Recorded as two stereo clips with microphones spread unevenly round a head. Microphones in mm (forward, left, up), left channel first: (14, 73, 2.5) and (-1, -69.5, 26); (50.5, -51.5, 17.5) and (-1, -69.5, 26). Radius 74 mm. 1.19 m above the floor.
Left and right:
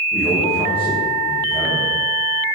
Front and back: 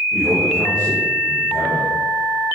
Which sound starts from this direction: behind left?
A man speaking, at 0.1 s.